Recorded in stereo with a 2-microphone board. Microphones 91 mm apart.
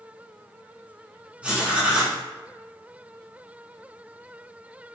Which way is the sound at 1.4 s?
15° right (ahead or behind).